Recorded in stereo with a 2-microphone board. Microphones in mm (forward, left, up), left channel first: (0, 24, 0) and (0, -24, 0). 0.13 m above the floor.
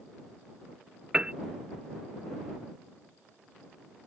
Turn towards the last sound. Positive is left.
turn(degrees=-20)  # may be behind; listen again after turning